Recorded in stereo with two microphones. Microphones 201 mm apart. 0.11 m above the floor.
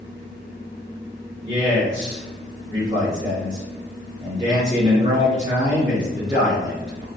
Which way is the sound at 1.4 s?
25° right (ahead or behind).